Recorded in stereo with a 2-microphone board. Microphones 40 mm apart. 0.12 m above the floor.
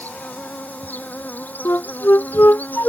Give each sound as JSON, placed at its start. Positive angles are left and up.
{"t": 0.0, "sound": "an insect", "side_deg": 50}
{"t": 1.6, "sound": "a flute", "side_deg": 80}